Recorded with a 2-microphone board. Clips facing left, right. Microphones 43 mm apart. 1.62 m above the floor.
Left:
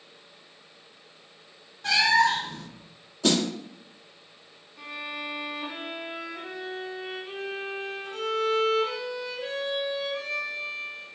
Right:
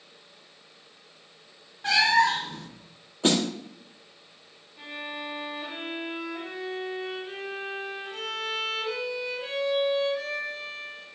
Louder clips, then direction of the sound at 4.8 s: Left 1 dB; 15° right (ahead or behind).